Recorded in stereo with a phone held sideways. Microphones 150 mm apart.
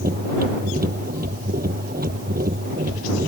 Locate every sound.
0.0 s a machine running: 85° right